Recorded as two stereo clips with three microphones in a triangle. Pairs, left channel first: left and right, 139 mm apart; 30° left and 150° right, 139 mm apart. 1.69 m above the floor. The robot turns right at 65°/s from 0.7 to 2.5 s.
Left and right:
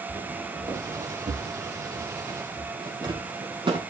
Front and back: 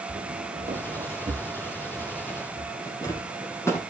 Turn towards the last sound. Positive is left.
turn(degrees=-40)